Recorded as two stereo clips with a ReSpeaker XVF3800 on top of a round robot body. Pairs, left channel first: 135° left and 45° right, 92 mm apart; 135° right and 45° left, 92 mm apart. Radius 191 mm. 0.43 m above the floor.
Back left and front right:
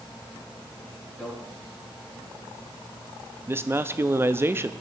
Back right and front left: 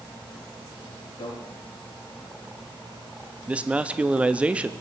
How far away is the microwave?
About 4.5 m.